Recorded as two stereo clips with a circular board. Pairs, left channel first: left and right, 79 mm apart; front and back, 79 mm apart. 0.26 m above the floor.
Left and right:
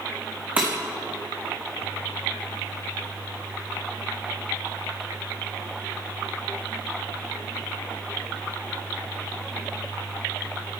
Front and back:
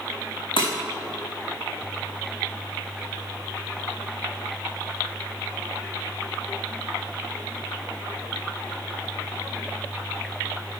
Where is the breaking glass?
15° right, 2.5 m.